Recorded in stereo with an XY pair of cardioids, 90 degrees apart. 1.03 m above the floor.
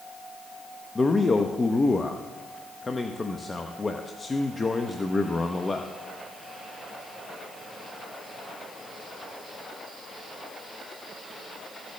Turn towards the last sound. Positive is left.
turn(degrees=30)